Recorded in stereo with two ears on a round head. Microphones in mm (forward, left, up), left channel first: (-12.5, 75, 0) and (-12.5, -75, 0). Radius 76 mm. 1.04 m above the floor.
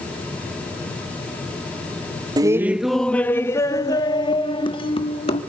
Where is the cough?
No cough in this recording.